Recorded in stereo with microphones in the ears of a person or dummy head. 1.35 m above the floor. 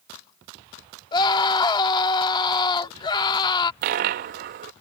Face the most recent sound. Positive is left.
turn(degrees=-45)  # may be behind; listen again after turning